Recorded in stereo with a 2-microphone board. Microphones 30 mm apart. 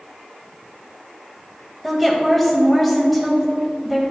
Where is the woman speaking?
5° left (ahead or behind), 0.9 m.